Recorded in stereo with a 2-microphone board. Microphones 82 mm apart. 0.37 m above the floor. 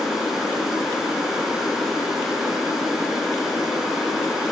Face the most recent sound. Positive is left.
turn(degrees=-5)  # may be behind; listen again after turning